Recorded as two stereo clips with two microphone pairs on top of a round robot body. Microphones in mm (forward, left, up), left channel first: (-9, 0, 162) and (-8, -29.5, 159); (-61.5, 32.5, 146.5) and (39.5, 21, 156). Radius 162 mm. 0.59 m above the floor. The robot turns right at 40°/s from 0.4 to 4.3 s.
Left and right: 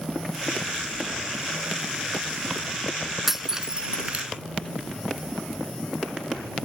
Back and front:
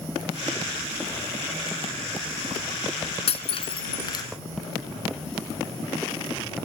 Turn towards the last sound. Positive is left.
turn(degrees=-130)